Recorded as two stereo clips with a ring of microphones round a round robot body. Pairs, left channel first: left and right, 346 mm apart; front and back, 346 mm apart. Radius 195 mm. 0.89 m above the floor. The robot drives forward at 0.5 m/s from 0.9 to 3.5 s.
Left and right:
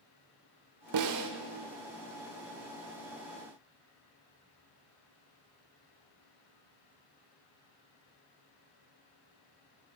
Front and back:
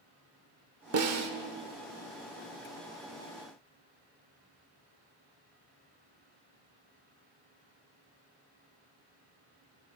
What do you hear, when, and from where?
0.9 s a snare drum: 135° right, 1.0 m; by 1.3 s 140° right, 1.1 m